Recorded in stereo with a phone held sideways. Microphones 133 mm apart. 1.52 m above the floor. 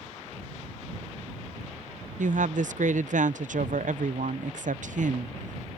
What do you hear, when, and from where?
2.2 s a woman speaking: 70° right (ahead or behind)